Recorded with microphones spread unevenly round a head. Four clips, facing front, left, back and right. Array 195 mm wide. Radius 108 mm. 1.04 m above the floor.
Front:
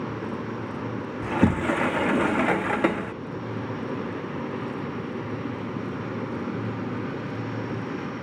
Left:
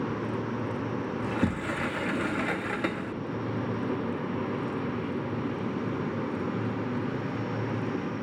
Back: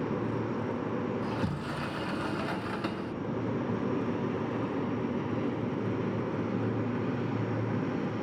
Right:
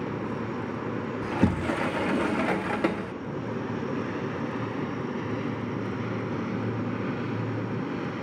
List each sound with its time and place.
1.2 s a sliding door: 20° right, 0.8 m